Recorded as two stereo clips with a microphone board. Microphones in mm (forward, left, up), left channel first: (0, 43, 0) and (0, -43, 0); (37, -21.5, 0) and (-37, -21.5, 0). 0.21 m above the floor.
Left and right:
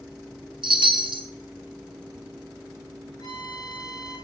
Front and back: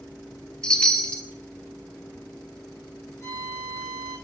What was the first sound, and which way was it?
A chime, 75° right.